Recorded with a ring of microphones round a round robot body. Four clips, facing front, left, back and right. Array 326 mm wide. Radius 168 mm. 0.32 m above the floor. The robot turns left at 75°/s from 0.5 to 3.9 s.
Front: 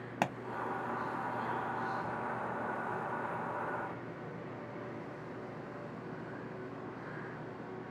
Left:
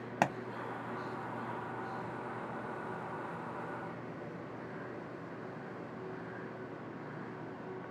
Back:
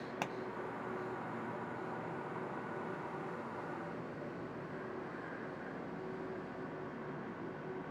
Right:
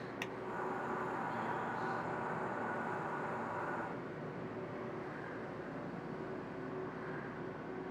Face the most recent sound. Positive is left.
turn(degrees=170)